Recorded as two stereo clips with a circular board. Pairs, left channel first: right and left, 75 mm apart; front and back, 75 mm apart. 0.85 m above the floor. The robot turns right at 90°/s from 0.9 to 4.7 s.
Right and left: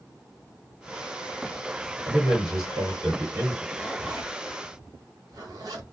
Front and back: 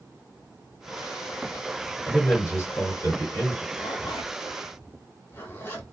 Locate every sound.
2.0 s a man speaking: 90° right, 1.6 m; by 3.6 s 55° left, 1.6 m
3.7 s a zipper: 25° right, 0.9 m; by 5.8 s 60° left, 0.9 m